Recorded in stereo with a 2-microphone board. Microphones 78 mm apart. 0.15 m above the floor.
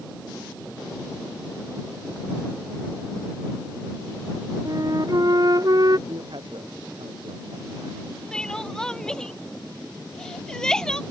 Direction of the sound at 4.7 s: 50° right (ahead or behind).